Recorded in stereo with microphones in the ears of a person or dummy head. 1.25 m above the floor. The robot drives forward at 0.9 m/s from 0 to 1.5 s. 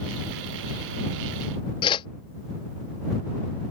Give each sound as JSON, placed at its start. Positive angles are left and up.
{"t": 1.8, "sound": "a whoosh", "side_deg": 30}